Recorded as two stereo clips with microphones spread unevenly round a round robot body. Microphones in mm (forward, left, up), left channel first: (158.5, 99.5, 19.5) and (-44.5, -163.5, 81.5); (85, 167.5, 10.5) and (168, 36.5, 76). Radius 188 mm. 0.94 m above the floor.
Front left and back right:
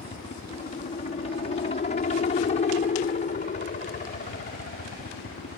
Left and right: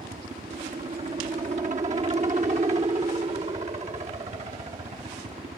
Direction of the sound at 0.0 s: 15° right.